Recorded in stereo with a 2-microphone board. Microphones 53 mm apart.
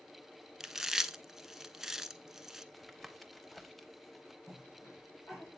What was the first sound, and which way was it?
Chewing, 5° right (ahead or behind).